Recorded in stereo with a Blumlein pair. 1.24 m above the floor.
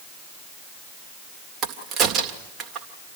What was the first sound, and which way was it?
A crack, 30° right.